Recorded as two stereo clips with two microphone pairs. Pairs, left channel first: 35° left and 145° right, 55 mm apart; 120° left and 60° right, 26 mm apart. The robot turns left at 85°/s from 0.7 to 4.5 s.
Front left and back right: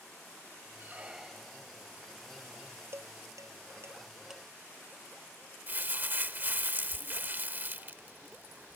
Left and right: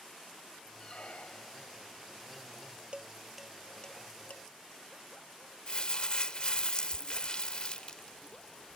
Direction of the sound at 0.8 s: 165° left.